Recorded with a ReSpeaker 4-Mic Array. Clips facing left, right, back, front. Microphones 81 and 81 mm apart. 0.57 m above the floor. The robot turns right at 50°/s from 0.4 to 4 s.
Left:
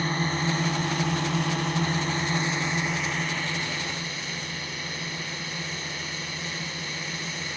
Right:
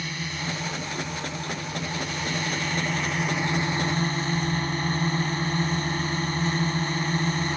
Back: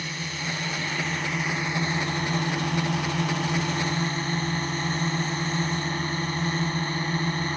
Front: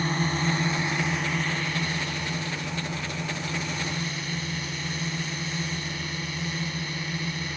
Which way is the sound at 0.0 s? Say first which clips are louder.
Left 6 dB, front 7 dB; 45° left.